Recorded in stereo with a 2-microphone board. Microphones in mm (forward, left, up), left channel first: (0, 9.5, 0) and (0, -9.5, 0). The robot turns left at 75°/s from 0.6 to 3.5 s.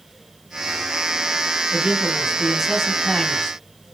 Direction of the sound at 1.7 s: 95° right.